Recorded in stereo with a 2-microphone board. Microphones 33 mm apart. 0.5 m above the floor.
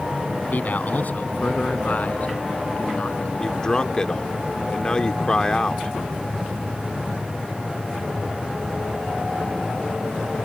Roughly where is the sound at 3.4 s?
Left.